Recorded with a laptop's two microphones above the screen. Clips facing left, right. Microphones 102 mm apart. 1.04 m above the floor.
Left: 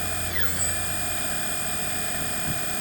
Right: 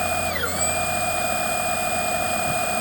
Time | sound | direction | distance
0.0 | a machine running | 65° right (ahead or behind) | ?